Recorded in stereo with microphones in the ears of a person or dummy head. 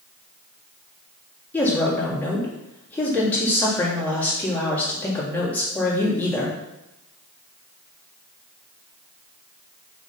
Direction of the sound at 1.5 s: 15° left (ahead or behind).